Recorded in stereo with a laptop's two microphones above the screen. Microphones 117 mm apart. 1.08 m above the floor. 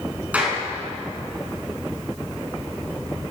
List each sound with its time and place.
0.3 s a clap: 10° right (ahead or behind), 8.5 m